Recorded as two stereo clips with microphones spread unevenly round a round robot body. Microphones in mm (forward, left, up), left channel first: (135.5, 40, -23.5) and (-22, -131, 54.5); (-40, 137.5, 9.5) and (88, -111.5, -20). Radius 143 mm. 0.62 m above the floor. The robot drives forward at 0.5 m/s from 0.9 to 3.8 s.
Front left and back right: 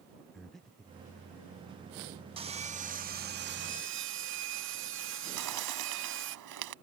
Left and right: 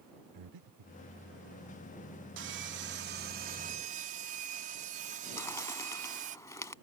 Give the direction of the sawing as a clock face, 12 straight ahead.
2 o'clock.